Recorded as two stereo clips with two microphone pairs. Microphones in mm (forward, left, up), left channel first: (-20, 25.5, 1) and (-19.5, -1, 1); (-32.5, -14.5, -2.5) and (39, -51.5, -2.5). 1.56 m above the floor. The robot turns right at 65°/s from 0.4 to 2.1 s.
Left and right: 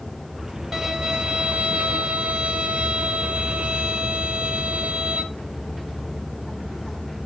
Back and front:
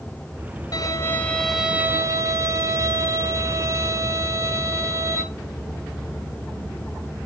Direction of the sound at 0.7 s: 165° right.